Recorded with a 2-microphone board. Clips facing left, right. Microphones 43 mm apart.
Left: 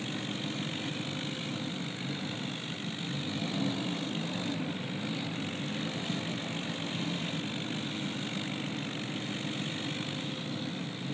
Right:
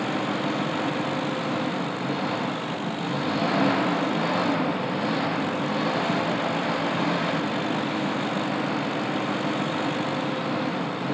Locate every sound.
0.0 s an engine running: 90° right